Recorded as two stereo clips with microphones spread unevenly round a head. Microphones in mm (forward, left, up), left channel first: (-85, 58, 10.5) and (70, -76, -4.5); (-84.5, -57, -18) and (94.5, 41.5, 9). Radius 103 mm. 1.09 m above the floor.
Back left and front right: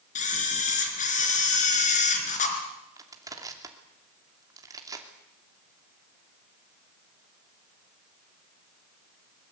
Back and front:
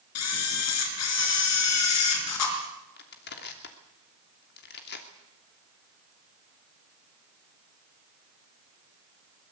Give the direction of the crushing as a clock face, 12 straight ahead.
4 o'clock.